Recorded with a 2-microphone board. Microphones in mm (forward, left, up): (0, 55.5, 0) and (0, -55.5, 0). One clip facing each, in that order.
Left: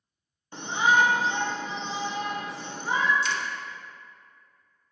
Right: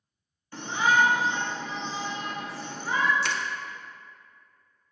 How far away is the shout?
About 0.9 m.